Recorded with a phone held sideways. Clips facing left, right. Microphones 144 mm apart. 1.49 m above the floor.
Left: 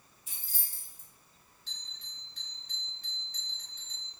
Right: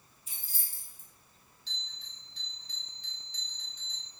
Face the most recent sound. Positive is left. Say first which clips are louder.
# right 4 dB
turn(degrees=50)  # may be behind; listen again after turning